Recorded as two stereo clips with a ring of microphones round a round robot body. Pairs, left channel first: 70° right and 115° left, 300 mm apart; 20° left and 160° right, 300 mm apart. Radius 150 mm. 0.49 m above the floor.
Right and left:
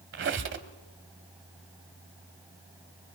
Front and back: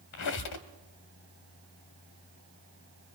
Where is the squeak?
60° left, 1.3 m.